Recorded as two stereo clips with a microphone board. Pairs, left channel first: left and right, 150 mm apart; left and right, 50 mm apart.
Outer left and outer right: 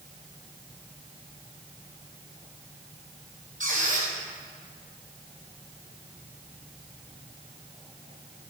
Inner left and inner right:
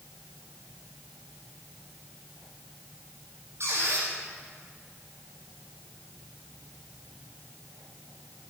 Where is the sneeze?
I don't hear a sneeze.